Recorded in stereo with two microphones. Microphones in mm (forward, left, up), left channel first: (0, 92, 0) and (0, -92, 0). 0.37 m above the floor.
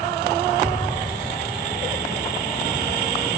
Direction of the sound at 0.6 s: 15° left (ahead or behind).